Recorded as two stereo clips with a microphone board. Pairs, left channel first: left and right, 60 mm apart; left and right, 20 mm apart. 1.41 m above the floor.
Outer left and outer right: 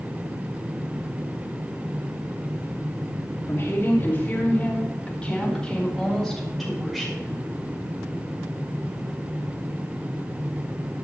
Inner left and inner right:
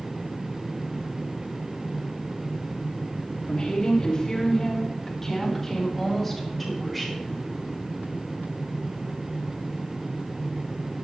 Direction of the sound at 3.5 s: 40° left (ahead or behind).